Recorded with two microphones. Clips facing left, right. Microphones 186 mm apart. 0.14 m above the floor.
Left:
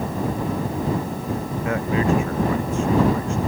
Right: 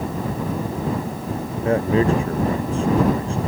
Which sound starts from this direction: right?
A man speaking, at 1.6 s.